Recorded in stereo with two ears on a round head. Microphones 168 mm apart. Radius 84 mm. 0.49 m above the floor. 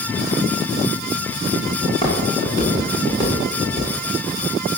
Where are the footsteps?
25° left (ahead or behind), 7 m; by 3.9 s 15° left (ahead or behind), 6 m.